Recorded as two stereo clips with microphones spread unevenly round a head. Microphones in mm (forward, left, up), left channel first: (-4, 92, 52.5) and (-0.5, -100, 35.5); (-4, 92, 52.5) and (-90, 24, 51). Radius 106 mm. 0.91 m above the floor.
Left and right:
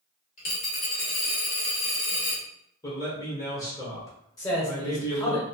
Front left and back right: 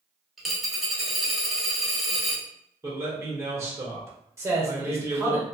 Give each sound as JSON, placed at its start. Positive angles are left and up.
{"t": 0.4, "sound": "a dropped coin", "azimuth_deg": 130, "distance_m": 1.0}
{"t": 2.8, "sound": "a man speaking", "azimuth_deg": 160, "distance_m": 1.2}
{"t": 4.4, "sound": "a man speaking", "azimuth_deg": 160, "distance_m": 1.2}